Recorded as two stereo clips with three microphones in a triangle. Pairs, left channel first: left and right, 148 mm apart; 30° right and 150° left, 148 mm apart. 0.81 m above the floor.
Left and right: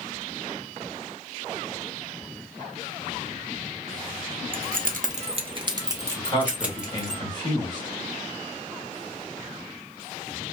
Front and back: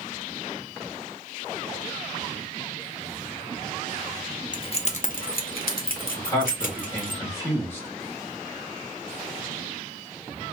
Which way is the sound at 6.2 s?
40° left.